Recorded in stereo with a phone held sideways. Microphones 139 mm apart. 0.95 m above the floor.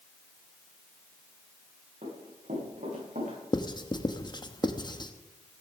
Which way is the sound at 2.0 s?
75° right (ahead or behind).